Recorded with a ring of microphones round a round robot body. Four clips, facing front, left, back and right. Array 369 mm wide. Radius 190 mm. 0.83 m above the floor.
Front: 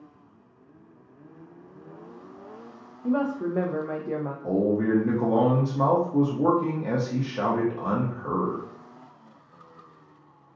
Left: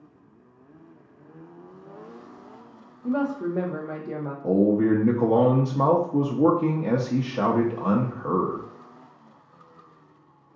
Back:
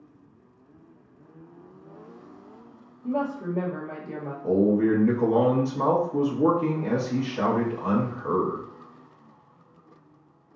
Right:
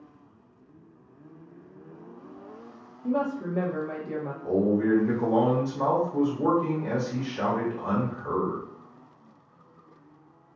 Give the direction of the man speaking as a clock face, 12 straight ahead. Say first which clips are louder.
Left 4 dB, back 3 dB; 9 o'clock.